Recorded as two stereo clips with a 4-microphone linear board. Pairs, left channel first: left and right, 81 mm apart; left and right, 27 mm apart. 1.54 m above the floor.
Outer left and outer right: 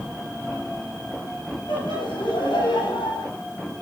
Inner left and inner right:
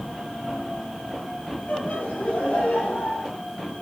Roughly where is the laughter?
Left.